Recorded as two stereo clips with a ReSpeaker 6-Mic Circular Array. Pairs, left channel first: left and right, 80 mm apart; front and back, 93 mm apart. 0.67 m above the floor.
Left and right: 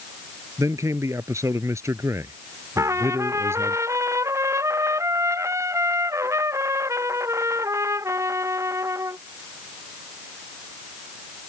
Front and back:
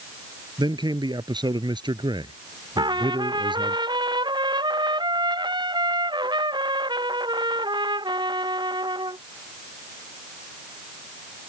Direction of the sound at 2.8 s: 145° right.